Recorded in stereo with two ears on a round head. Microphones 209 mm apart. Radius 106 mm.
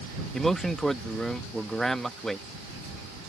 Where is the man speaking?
Centre (ahead or behind).